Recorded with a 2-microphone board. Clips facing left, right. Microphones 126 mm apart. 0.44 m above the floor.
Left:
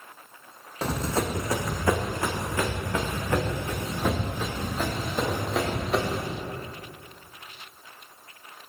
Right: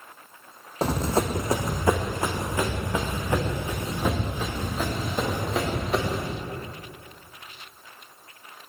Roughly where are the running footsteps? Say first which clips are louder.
Right 3 dB; right.